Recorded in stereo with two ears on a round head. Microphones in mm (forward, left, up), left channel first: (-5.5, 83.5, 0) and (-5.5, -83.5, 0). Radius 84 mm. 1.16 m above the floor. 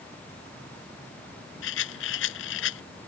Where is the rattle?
75° left (ahead or behind).